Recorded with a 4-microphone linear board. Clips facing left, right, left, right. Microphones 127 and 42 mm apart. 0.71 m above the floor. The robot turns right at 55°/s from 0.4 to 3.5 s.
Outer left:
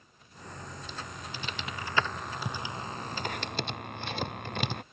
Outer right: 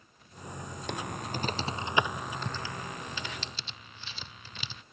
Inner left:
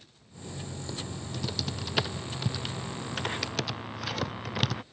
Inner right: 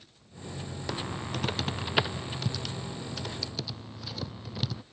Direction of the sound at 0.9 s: 75° right (ahead or behind).